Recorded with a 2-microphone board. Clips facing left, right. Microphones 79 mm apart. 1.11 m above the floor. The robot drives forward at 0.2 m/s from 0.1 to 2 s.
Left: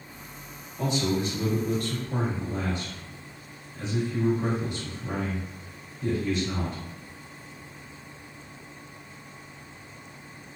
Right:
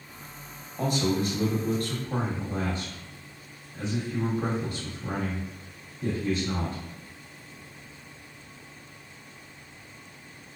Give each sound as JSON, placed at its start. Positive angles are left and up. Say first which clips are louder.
{"t": 0.8, "sound": "a man speaking", "louder": "even", "side_deg": -50, "distance_m": 1.2}